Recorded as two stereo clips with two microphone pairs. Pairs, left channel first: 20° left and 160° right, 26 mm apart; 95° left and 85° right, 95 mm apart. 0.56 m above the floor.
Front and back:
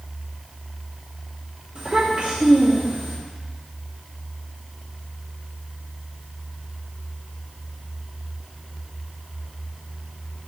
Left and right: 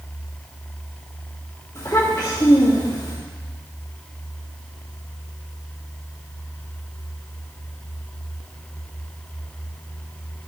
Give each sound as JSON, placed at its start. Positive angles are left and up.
{"t": 1.8, "sound": "a child speaking", "azimuth_deg": 155, "distance_m": 2.5}